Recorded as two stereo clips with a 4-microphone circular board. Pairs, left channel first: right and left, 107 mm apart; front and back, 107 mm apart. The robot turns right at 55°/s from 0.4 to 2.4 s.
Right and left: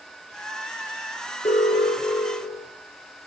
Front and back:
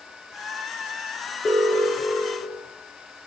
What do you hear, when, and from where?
1.4 s an alarm: 90° right, 8 m; by 2.7 s 35° right, 8 m